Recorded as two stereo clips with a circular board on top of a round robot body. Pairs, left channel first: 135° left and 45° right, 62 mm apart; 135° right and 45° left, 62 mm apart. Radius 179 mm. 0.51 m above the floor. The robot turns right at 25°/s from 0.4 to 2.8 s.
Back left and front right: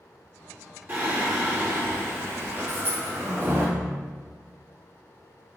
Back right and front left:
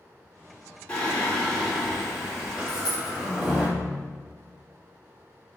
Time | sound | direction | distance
0.9 | singing | 75° right | 1.6 m
2.7 | a dropped coin | 115° right | 0.9 m